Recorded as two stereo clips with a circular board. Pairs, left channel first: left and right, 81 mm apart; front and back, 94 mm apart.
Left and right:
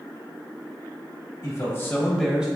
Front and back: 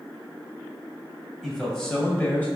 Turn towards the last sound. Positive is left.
turn(degrees=-40)